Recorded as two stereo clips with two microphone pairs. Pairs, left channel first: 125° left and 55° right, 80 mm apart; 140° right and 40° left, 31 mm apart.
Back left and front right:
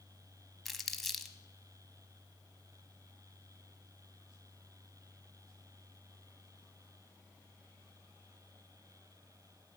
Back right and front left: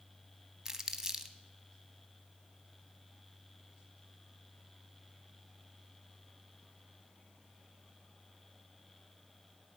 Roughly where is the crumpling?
Ahead left.